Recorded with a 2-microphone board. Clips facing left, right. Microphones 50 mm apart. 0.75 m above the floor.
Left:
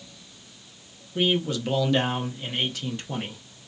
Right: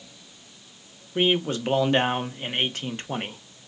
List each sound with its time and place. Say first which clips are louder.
1.1 s a man speaking: right 1 dB; 40° right (ahead or behind), 0.5 m